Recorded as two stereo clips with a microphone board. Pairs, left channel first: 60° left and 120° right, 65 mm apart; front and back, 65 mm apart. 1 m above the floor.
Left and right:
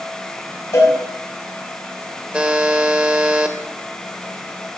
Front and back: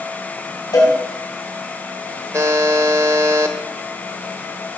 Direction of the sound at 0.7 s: 25° left.